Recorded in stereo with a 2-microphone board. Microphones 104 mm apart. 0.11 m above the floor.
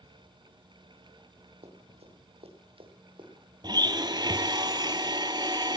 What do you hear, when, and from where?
1.6 s running footsteps: 85° right, 3.5 m; by 3.3 s 50° right (ahead or behind), 3 m
3.6 s a blender: 45° right (ahead or behind), 0.8 m